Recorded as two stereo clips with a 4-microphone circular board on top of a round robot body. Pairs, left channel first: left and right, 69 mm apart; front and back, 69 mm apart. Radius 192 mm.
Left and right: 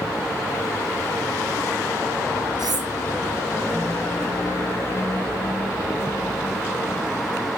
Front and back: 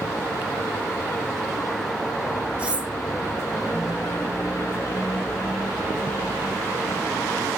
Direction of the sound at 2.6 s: 105° right.